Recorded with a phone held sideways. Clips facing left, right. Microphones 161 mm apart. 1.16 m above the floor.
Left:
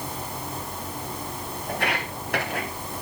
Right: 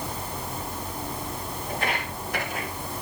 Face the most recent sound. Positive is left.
turn(degrees=65)  # may be behind; listen again after turning